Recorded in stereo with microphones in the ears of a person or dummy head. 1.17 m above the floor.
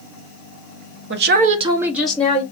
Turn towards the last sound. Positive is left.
turn(degrees=10)  # may be behind; listen again after turning